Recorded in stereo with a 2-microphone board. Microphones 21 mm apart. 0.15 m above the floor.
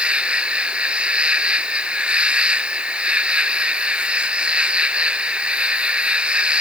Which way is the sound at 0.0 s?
80° right.